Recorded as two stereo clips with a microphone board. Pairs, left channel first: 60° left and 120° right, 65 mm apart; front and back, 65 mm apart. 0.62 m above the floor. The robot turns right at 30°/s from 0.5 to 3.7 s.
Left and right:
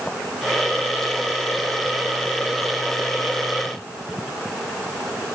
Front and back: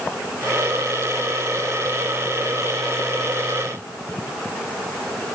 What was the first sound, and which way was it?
Only background noise.